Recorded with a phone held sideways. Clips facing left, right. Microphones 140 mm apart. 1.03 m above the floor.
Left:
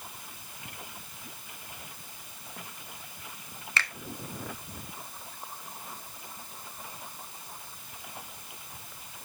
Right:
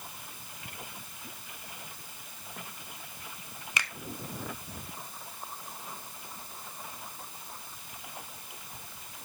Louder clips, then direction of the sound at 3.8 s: Left 2 dB; 15° right (ahead or behind).